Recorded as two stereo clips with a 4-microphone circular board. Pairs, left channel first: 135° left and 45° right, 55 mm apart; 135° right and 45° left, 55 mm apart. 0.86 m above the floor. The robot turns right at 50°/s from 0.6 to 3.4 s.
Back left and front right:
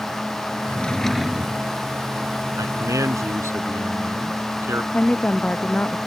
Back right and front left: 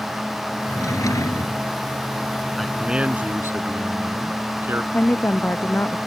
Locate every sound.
0.7 s a drawer: 160° right; by 1.7 s 110° right
2.6 s a man speaking: 45° right; by 4.8 s 5° right
4.9 s a woman speaking: 170° right